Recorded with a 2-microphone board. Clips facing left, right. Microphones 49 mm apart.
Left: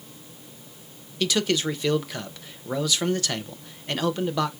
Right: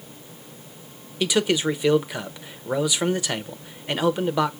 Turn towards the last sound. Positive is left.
turn(degrees=-15)  # may be behind; listen again after turning